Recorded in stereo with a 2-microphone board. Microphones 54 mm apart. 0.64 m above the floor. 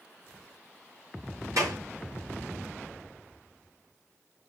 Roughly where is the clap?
Right.